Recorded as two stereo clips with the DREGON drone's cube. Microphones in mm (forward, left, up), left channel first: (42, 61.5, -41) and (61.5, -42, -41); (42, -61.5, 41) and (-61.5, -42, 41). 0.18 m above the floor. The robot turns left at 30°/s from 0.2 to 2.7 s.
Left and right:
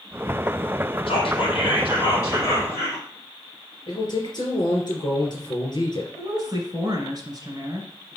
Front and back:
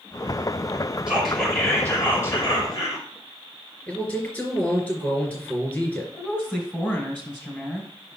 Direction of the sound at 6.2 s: 75° right.